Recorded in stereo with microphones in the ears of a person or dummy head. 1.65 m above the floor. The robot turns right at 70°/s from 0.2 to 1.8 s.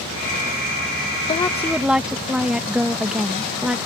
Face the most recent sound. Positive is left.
turn(degrees=-175)